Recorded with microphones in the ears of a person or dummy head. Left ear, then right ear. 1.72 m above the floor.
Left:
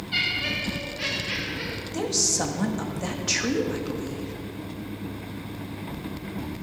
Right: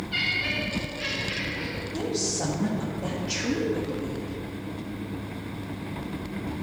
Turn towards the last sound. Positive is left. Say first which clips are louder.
# left 5 dB
turn(degrees=65)  # may be behind; listen again after turning